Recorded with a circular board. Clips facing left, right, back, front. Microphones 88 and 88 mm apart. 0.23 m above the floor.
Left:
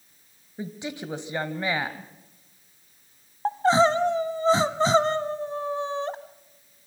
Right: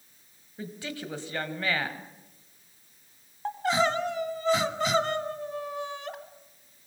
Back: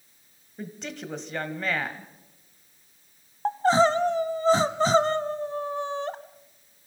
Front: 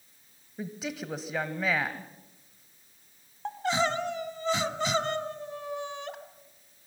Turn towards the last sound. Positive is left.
turn(degrees=140)